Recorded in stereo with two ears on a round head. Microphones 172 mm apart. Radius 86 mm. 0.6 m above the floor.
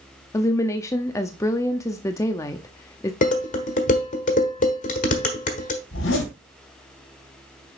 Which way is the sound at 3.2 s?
45° left (ahead or behind).